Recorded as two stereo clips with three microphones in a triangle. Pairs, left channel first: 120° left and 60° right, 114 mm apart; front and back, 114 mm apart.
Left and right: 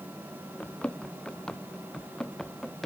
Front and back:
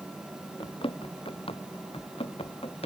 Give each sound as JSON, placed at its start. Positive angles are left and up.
{"t": 0.6, "sound": "running footsteps", "azimuth_deg": 40}